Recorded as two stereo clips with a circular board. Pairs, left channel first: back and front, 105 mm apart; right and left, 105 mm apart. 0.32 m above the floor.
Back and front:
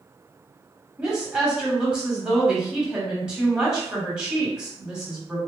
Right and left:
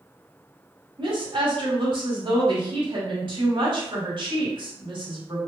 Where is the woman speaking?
80° left, 1.6 m.